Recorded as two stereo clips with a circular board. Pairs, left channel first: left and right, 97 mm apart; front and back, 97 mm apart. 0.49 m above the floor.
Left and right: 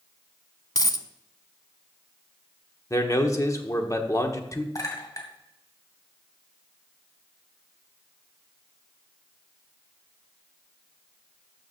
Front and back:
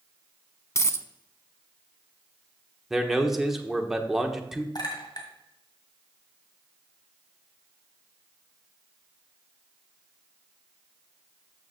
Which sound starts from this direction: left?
A man speaking, at 2.9 s.